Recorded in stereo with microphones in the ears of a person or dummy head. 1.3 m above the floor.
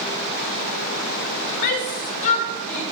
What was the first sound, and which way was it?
A shout, 55° left (ahead or behind).